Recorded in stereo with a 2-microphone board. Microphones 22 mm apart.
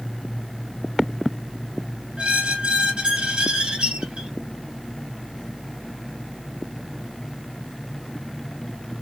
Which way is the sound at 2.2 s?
60° right (ahead or behind).